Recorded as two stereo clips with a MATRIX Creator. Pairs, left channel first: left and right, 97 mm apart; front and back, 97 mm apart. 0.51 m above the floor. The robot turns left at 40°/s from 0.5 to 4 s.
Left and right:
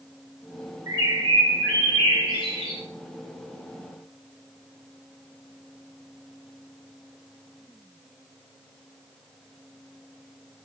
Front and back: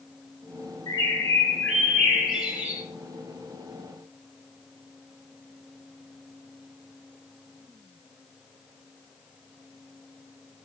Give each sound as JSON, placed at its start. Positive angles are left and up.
{"t": 0.9, "sound": "a bird", "azimuth_deg": -35, "distance_m": 0.8}